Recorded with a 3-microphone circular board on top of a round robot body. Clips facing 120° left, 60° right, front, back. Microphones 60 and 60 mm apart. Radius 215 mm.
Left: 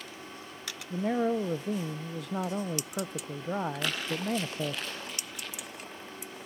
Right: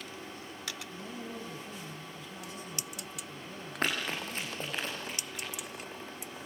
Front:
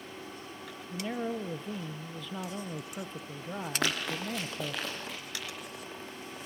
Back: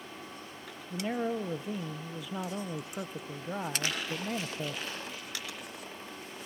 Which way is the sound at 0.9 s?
100° left.